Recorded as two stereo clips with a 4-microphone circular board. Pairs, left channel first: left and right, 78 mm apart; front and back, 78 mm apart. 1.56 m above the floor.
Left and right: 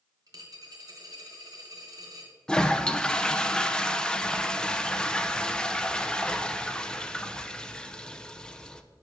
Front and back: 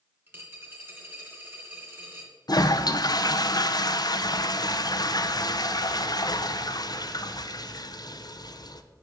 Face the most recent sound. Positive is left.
turn(degrees=15)